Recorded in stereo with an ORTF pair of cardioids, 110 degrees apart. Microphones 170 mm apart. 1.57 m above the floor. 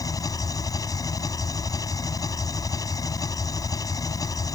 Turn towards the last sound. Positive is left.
turn(degrees=20)